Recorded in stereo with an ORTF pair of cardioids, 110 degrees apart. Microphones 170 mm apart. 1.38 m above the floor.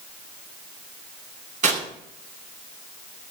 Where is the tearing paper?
50° right, 7.5 m.